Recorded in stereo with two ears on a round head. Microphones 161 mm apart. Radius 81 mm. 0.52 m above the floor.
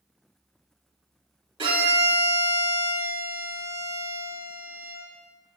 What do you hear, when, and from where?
1.6 s a violin: 30° right (ahead or behind), 2.5 m